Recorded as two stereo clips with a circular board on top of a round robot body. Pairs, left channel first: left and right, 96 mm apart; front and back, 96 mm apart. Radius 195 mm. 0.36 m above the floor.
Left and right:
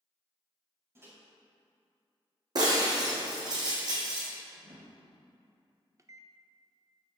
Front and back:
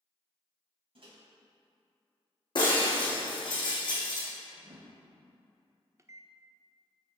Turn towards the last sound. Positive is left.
turn(degrees=-135)